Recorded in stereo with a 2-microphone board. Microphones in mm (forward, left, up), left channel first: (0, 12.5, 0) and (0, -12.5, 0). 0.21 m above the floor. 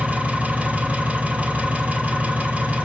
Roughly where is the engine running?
Right.